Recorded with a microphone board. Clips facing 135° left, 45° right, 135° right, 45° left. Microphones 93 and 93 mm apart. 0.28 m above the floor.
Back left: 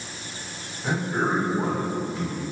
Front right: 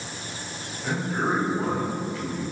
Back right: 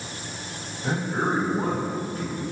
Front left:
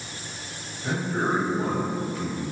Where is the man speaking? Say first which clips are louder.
Back left 1 dB, even; 160° right, 2 m; by 2.4 s 165° right, 3 m.